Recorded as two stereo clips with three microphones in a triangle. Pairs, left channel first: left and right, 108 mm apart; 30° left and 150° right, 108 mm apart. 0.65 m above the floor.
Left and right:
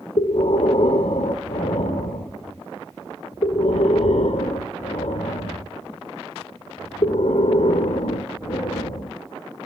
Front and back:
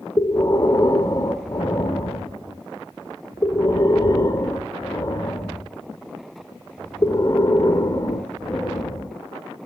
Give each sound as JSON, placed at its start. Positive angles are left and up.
{"t": 0.2, "sound": "breathing", "azimuth_deg": 85, "distance_m": 1.3}